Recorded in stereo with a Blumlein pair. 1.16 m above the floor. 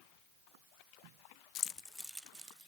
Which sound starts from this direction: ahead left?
Keys jangling, at 1.6 s.